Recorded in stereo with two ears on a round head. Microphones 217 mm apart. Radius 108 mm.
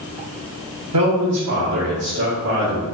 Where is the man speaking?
75° right (ahead or behind), 1.2 m; by 2.8 s 45° right (ahead or behind), 1.8 m.